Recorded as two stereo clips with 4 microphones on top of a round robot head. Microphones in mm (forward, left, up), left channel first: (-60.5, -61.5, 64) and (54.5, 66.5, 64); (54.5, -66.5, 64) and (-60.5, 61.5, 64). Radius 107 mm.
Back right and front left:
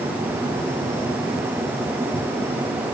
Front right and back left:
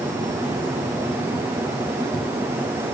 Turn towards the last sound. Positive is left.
No sound to turn to.